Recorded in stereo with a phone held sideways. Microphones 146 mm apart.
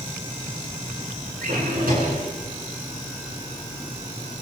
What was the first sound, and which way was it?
A drawer, 80° right.